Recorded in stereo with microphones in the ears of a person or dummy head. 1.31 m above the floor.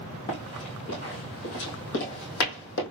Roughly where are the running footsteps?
Left.